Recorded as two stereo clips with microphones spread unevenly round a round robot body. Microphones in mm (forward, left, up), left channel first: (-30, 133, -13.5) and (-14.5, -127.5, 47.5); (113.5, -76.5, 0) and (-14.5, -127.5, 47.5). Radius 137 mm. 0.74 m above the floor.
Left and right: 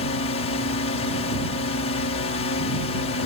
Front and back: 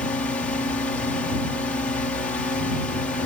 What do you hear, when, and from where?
0.0 s a drone: 70° left